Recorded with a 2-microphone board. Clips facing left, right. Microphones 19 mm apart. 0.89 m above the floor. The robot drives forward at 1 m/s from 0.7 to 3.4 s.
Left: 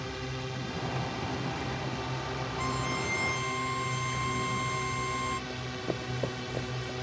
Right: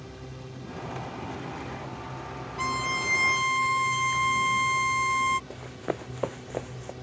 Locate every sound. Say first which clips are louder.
0.0 s a drone: left 6 dB; 45° left (ahead or behind)
2.6 s a violin: right 6 dB; 35° right (ahead or behind); by 5.4 s 45° right (ahead or behind)
5.5 s running footsteps: right 1 dB; 55° right (ahead or behind); by 6.9 s 45° right (ahead or behind)